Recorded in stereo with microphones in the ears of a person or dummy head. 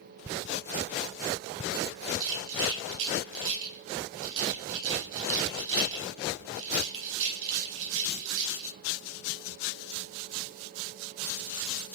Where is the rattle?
80° right, 4.5 m.